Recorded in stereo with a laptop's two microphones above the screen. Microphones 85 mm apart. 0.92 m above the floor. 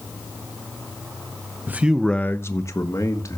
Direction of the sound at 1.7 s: 25° right (ahead or behind).